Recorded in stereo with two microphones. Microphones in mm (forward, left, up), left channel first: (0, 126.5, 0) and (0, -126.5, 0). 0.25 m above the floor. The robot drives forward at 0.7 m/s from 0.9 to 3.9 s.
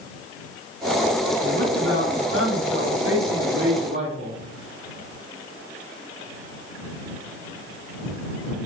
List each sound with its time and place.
1.4 s a man speaking: 55° right (ahead or behind), 2.0 m; by 4.3 s 40° right (ahead or behind), 2.5 m